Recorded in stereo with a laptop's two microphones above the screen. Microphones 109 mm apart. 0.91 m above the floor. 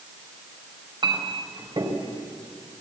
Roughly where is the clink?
Right.